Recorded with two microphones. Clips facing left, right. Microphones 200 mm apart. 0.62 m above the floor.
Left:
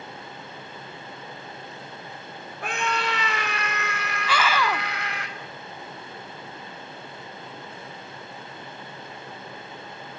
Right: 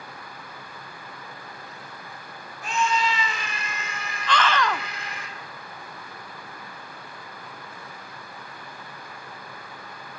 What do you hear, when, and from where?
2.6 s a scream: 60° left (ahead or behind), 1.4 m; by 5.3 s 70° left (ahead or behind), 3.5 m
4.3 s a scream: 10° left (ahead or behind), 1.1 m